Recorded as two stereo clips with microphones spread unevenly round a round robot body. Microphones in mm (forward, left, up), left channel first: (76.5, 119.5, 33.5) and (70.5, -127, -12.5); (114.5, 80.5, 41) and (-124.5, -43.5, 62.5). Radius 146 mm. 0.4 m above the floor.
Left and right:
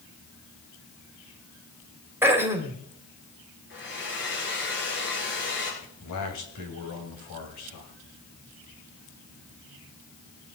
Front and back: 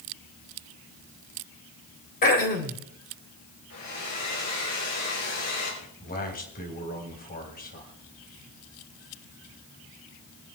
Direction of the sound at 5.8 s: 80° left.